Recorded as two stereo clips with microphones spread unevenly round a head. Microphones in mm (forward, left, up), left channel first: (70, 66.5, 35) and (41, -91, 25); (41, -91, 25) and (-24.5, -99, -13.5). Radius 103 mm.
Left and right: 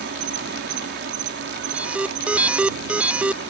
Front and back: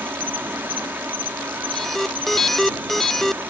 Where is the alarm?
165° right.